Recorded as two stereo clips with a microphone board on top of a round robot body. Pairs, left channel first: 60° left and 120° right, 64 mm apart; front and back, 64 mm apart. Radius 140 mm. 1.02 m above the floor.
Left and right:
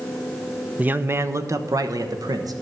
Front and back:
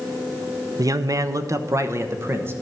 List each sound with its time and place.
0.8 s a man speaking: 175° left, 0.8 m; by 2.5 s 130° right, 1.4 m